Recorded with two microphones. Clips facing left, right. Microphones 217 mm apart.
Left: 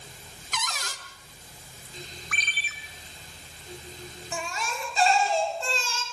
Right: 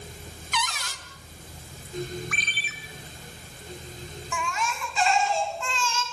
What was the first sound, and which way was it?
A cupboard door, 45° left (ahead or behind).